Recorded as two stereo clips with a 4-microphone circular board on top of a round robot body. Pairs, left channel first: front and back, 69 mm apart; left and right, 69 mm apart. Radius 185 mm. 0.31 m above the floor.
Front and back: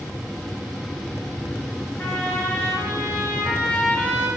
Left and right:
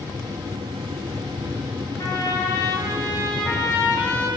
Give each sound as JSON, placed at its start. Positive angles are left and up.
{"t": 2.0, "sound": "a trumpet", "azimuth_deg": 60, "distance_m": 3.0}